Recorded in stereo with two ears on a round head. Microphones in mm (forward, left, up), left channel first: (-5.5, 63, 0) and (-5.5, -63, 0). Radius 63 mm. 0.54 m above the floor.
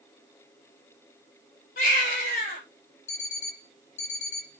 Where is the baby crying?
60° left (ahead or behind), 7 m.